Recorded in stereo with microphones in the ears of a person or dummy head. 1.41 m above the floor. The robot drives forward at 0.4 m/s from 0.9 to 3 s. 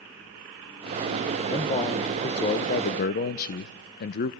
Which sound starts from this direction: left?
A man speaking, at 1.5 s.